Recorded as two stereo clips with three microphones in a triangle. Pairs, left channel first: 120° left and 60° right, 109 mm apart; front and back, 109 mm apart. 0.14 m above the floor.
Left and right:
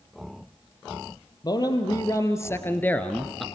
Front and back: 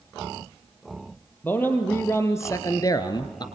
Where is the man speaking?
70° left, 3.5 m; by 3.5 s 30° left, 2 m.